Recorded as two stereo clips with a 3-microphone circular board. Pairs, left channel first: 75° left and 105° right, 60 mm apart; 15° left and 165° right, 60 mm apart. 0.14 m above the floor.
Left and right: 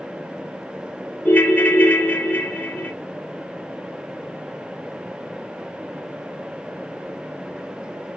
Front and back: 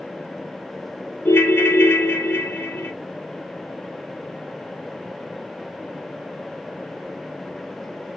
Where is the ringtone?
35° left, 0.6 m.